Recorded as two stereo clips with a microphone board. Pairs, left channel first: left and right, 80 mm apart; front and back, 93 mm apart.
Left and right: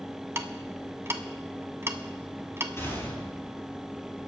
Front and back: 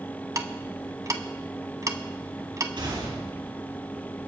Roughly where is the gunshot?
Behind left.